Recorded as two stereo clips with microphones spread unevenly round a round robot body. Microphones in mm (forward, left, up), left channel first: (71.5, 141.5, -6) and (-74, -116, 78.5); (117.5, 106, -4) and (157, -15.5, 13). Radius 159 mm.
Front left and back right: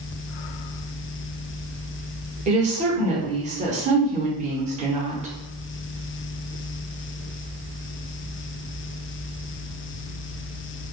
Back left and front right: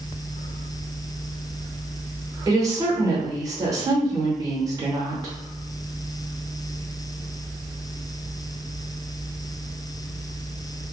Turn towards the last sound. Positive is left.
turn(degrees=-50)